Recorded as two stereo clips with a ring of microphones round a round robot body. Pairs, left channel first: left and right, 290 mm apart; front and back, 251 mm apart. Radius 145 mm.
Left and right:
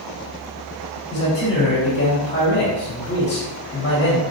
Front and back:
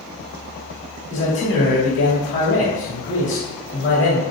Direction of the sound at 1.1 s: 35° left.